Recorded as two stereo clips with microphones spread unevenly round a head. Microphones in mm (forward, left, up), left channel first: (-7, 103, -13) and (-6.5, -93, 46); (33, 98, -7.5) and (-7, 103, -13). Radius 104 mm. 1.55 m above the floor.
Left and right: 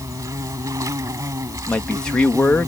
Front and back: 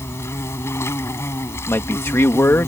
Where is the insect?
15° right.